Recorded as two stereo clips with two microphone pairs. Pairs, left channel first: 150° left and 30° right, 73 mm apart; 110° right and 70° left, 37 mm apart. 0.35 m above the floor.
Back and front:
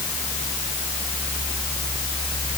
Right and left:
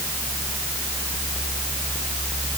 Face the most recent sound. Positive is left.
No sound to turn to.